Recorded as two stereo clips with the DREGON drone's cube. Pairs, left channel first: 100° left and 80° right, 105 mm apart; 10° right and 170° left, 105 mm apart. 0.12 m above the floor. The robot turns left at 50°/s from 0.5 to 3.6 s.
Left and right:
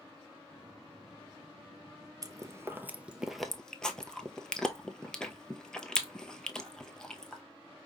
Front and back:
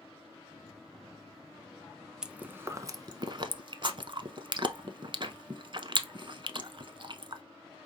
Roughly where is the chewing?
Right.